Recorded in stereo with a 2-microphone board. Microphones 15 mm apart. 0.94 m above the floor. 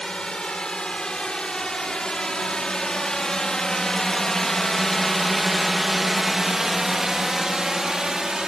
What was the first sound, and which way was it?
A drone, 70° left (ahead or behind).